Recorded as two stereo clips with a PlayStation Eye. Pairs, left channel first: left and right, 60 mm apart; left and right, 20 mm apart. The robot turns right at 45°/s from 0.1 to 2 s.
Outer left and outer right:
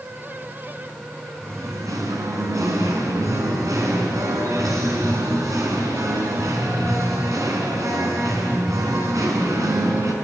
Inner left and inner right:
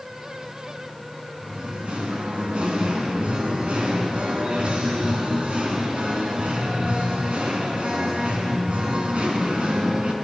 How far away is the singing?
About 4 m.